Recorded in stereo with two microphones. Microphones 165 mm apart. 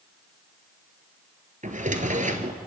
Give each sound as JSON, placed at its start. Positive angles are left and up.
{"t": 1.6, "sound": "a drawer", "side_deg": -45, "distance_m": 1.5}